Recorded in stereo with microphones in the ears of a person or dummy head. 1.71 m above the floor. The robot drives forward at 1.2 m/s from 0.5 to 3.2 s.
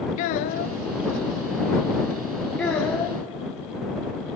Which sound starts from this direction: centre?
A child speaking, at 2.6 s.